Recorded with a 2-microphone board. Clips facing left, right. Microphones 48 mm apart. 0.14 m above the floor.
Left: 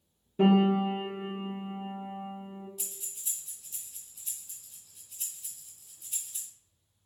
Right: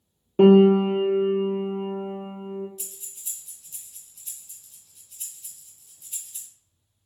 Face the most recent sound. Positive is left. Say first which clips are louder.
# right 1 dB
turn(degrees=5)  # may be behind; listen again after turning